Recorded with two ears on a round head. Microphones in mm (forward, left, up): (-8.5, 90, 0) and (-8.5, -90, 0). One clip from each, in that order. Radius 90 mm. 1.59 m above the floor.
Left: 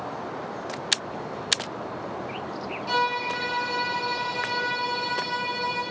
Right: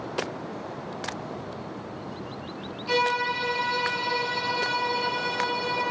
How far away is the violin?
About 8 m.